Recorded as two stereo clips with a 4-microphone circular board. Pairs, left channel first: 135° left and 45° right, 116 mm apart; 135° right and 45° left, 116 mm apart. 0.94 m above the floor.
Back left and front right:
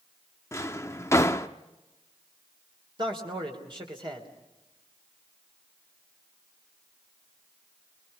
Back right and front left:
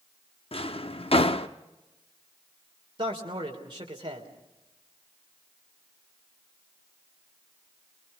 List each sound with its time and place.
0.5 s a drawer: 160° right, 0.7 m
3.0 s a man speaking: straight ahead, 3 m